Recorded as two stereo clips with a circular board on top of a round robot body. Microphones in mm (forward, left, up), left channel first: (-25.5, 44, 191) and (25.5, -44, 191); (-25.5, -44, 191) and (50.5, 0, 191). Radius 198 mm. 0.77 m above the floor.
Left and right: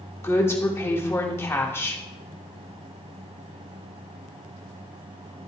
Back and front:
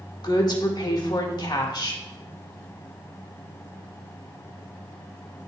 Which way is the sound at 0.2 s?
175° right.